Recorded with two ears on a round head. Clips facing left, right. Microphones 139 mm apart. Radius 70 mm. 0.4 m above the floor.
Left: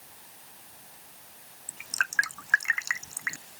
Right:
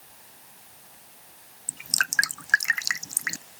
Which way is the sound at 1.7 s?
40° right (ahead or behind).